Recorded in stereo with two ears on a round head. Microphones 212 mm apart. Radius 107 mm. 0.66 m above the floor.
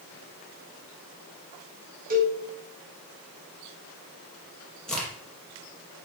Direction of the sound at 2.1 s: 40° right (ahead or behind).